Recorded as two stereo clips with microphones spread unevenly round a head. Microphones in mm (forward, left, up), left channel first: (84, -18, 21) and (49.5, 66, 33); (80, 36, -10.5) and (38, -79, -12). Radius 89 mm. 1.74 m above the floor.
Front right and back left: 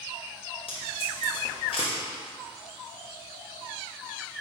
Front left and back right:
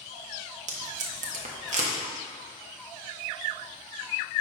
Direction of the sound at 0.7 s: 125° right.